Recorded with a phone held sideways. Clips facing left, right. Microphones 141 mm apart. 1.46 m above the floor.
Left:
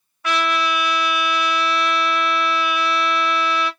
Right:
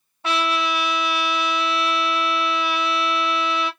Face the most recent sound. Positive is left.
turn(degrees=-30)  # may be behind; listen again after turning